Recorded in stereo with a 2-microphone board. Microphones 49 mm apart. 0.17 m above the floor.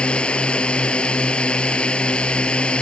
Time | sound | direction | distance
0.0 | a drone | 20° left (ahead or behind) | ?